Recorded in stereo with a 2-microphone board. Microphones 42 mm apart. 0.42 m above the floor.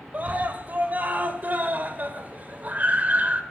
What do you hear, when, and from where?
0.1 s a scream: 40° right (ahead or behind), 2.5 m